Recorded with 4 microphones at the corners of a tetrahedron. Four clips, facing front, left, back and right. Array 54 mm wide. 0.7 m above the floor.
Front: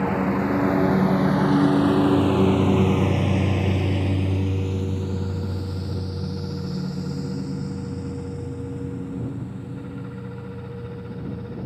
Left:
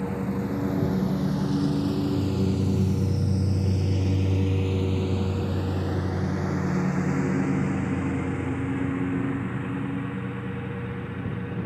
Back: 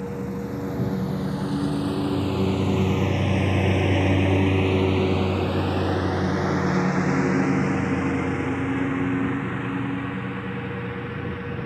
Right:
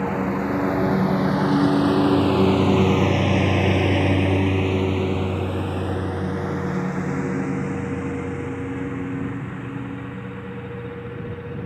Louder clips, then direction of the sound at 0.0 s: Right 6 dB, front 8 dB; 45° right.